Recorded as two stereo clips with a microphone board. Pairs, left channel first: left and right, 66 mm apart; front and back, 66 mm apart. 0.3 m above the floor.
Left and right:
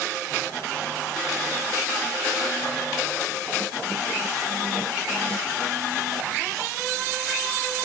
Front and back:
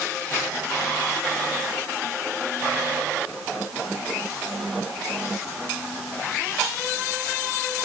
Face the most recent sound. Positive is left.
No sound to turn to.